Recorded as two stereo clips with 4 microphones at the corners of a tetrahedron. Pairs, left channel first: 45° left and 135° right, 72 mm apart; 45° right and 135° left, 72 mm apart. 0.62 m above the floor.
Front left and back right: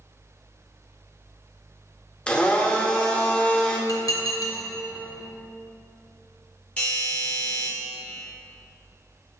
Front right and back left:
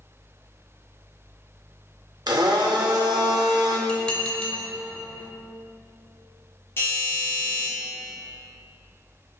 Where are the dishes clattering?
30° left, 0.6 m.